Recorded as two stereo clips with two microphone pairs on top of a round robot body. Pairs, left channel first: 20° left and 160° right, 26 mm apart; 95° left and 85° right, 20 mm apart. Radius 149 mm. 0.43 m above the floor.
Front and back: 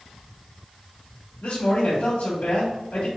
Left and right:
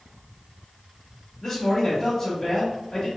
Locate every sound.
1.4 s a man speaking: 5° left, 1.9 m